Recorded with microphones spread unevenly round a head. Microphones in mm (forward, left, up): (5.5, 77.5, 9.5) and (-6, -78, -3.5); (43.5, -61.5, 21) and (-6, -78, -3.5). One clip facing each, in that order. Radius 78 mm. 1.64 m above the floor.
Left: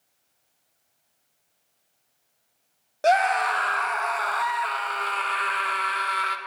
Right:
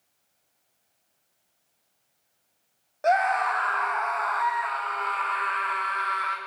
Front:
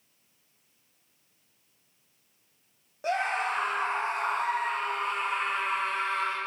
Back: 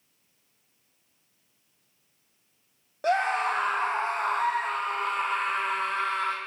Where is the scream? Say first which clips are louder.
Left 2 dB, back 4 dB; 125° left, 0.9 m.